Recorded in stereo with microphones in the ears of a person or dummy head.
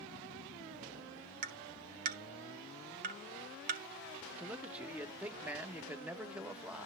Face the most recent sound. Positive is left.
turn(degrees=-5)  # may be behind; listen again after turning